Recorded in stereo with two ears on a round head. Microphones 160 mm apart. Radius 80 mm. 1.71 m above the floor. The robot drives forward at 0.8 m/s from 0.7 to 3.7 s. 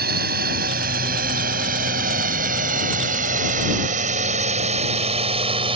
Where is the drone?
55° right (ahead or behind); by 5.8 s 30° right (ahead or behind).